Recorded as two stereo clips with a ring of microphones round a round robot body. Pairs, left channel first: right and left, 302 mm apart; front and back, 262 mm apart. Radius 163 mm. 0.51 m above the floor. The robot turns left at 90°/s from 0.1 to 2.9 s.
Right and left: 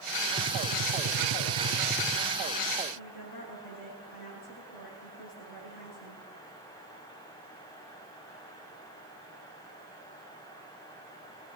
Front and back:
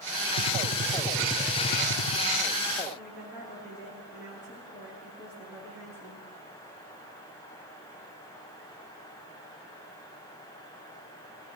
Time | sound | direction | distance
0.4 | a gunshot | 160° left | 0.8 m
3.0 | a woman speaking | 95° right | 8 m